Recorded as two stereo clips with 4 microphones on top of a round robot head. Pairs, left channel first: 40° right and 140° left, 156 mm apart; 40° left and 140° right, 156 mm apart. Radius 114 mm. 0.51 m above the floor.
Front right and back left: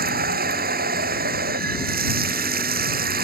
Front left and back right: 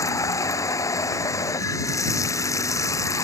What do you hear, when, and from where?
0.0 s running water: 110° left